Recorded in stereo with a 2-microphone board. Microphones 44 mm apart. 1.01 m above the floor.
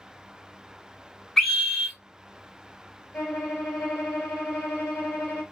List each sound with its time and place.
1.4 s a scream: 10° left (ahead or behind), 2.5 m
3.1 s a violin: 30° left (ahead or behind), 2.5 m